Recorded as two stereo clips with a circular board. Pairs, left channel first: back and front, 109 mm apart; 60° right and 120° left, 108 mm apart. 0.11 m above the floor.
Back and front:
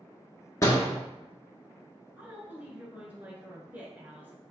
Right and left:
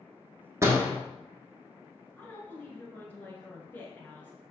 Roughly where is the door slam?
Behind left.